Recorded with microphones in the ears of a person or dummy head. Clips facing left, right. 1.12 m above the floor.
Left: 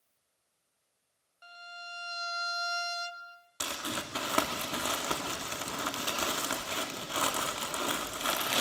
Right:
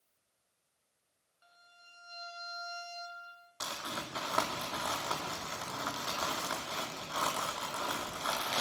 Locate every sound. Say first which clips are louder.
1.4 s a violin: left 16 dB; 80° left, 1.4 m
3.6 s crumpling: left 4 dB; 35° left (ahead or behind), 2 m